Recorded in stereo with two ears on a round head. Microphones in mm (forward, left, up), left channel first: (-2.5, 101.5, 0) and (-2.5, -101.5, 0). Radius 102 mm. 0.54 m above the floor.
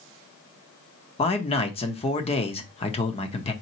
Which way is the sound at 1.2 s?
25° left (ahead or behind).